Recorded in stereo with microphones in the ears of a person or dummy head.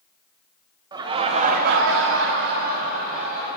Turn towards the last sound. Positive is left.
turn(degrees=-45)  # may be behind; listen again after turning